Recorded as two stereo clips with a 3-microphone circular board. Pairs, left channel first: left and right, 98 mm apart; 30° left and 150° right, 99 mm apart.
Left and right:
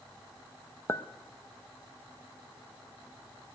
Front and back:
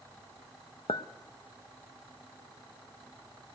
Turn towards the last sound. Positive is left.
turn(degrees=30)